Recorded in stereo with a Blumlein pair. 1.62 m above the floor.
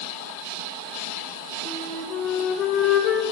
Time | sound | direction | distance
1.6 | a flute | 30° left | 0.6 m